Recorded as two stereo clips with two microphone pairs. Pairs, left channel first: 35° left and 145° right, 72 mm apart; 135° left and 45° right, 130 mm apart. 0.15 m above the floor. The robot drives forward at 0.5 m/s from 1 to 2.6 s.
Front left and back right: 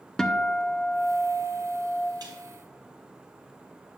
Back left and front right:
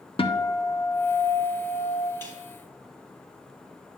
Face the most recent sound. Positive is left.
turn(degrees=-160)